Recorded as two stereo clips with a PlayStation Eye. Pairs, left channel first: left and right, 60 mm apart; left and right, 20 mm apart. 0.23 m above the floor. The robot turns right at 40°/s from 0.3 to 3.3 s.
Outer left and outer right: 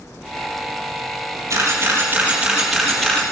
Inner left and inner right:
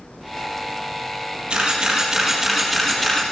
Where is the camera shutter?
50° right (ahead or behind), 4.5 m; by 3.2 s 15° left (ahead or behind), 4.5 m.